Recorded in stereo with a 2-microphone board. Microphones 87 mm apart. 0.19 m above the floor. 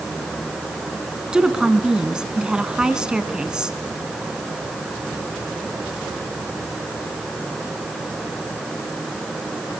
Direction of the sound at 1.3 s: 10° right (ahead or behind).